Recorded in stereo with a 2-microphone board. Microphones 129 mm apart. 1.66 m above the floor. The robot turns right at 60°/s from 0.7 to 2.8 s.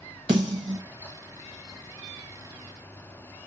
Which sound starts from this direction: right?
A snare drum, at 0.3 s.